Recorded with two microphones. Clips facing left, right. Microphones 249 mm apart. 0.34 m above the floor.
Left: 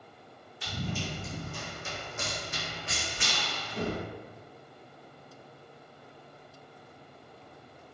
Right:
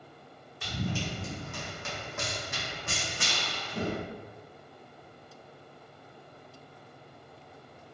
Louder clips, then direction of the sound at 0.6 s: Right 2 dB; 65° right (ahead or behind).